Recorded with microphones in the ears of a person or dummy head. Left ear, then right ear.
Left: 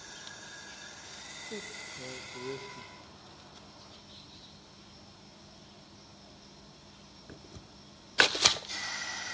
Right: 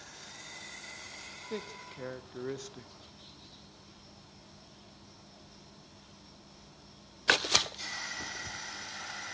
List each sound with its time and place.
1.5 s a man speaking: 50° right (ahead or behind), 1.2 m